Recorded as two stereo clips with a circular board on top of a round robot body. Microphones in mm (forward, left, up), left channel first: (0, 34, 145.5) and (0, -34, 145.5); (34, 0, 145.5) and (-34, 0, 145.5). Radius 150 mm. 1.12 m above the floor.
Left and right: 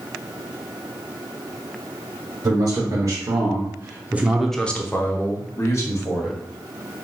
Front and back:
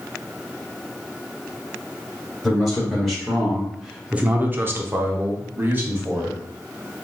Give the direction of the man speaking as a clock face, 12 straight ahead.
3 o'clock.